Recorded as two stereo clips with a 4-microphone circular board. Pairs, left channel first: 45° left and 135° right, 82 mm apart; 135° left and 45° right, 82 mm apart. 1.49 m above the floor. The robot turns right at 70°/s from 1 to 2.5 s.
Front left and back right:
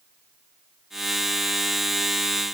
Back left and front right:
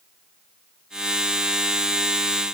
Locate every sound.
Only background noise.